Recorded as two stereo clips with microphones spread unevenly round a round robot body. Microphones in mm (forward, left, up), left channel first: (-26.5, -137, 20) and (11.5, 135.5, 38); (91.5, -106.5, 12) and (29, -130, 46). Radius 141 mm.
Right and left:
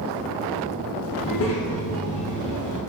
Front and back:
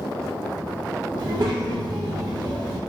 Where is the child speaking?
110° right, 0.6 m.